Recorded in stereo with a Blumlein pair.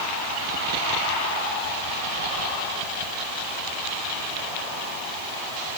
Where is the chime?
No chime in this recording.